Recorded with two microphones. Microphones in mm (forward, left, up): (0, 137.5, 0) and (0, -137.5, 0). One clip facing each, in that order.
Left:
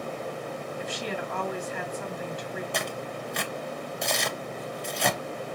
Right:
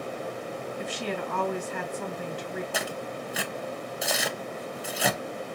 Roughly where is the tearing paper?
Centre.